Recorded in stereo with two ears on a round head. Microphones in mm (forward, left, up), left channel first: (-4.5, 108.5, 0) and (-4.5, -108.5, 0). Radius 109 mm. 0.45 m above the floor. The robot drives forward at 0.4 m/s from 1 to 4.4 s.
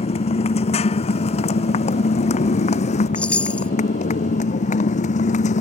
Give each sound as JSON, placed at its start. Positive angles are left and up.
{"t": 0.0, "sound": "a motorcycle", "side_deg": 25}
{"t": 3.1, "sound": "a chime", "side_deg": 5}